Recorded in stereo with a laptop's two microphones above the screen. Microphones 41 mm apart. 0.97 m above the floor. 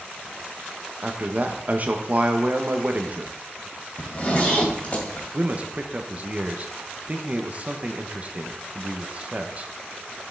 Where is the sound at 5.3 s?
35° right (ahead or behind), 0.7 m.